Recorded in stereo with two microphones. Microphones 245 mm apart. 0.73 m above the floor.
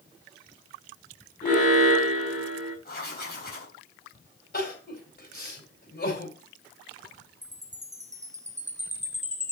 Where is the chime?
30° right (ahead or behind), 1.2 m.